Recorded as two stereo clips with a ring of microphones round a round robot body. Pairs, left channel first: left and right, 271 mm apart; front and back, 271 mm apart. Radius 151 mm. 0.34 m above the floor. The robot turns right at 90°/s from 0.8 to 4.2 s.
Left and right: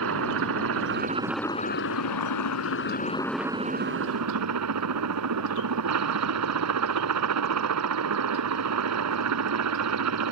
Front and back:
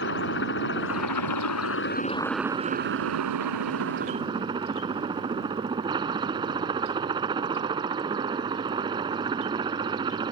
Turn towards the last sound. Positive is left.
turn(degrees=-105)